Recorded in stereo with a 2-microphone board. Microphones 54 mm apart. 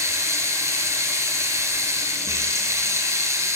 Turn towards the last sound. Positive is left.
turn(degrees=-70)  # may be behind; listen again after turning